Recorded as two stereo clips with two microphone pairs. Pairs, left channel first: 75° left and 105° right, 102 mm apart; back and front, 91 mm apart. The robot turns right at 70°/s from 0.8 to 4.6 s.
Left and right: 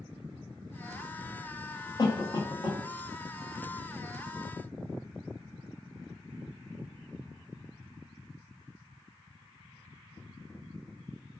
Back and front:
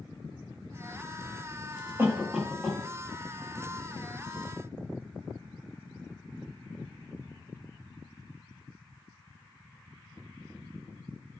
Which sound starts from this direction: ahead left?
A cough, at 2.0 s.